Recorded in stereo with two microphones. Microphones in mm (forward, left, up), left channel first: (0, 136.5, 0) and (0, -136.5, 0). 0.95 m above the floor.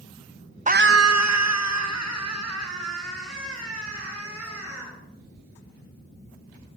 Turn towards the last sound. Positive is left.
turn(degrees=-60)  # may be behind; listen again after turning